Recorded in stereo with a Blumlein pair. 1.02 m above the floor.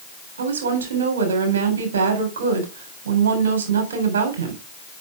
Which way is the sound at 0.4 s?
65° right.